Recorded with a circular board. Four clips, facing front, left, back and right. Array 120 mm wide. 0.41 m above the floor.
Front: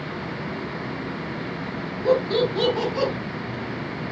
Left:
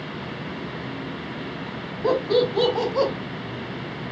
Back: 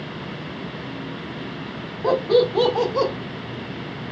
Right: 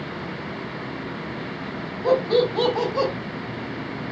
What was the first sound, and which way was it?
Laughter, 175° right.